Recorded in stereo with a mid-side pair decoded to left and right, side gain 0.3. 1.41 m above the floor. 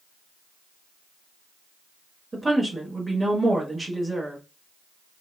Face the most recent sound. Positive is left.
turn(degrees=-30)